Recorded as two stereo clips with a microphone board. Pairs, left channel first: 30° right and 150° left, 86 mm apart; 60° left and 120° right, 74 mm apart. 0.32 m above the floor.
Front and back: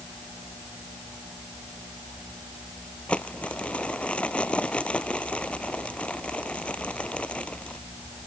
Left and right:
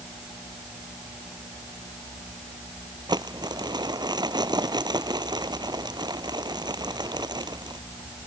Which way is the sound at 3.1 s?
105° right.